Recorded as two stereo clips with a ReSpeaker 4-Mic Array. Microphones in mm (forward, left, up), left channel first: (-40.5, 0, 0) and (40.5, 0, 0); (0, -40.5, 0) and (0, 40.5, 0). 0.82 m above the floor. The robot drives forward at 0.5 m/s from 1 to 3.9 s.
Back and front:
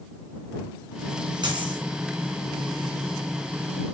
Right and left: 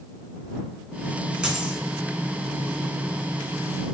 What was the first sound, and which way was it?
A dropped coin, 10° left.